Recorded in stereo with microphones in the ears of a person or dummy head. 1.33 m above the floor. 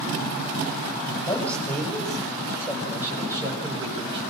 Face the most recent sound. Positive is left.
turn(degrees=-25)  # may be behind; listen again after turning